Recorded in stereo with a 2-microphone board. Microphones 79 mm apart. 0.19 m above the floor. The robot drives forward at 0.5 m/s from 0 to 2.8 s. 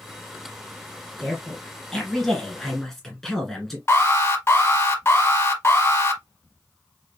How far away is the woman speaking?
About 3 m.